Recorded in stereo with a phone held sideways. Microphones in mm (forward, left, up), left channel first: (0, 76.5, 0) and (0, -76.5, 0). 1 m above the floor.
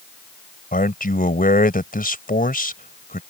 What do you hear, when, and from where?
0.7 s a man speaking: 70° left (ahead or behind)